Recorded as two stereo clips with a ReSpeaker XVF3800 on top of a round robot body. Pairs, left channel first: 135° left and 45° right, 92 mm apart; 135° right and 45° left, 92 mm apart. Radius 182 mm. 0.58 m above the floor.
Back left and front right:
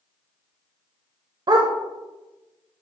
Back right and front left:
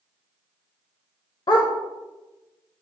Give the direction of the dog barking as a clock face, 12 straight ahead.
3 o'clock.